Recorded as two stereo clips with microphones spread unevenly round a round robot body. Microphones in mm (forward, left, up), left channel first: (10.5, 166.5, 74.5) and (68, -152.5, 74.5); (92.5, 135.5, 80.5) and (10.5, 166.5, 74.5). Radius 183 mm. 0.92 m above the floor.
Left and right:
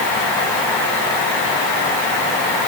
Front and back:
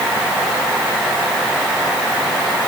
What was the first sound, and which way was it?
Only background noise.